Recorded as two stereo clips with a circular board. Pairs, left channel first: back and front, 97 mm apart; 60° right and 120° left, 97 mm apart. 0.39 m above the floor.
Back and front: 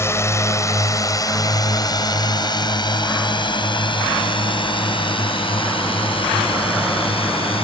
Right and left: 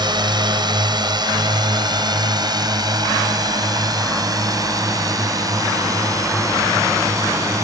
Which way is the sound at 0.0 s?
130° left.